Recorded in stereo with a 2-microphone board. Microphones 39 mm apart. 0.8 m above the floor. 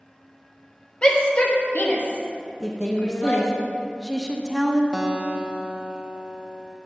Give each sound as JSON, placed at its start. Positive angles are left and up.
{"t": 1.0, "sound": "a shout", "side_deg": 25, "distance_m": 1.5}
{"t": 2.6, "sound": "a woman speaking", "side_deg": 5, "distance_m": 0.8}
{"t": 4.9, "sound": "a guitar", "side_deg": -20, "distance_m": 0.7}